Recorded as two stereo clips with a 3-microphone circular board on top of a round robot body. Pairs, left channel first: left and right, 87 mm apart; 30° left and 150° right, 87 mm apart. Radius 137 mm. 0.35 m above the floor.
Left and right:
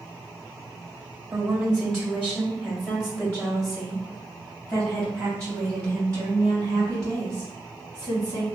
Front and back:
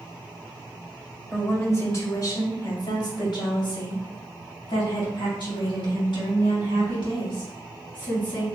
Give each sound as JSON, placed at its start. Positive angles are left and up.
{"t": 1.3, "sound": "a woman speaking", "azimuth_deg": -20, "distance_m": 1.1}